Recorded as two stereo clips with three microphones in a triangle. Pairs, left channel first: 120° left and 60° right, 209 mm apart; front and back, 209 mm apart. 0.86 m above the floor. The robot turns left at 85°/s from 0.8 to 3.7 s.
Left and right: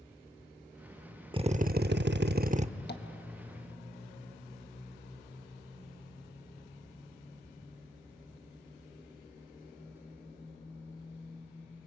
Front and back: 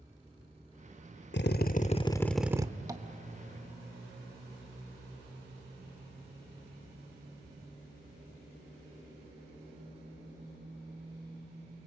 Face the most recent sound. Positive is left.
turn(degrees=40)